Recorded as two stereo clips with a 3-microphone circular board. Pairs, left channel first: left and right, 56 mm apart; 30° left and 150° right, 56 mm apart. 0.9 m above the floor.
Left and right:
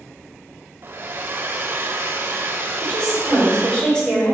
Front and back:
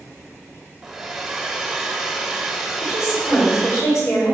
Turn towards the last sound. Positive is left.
turn(degrees=20)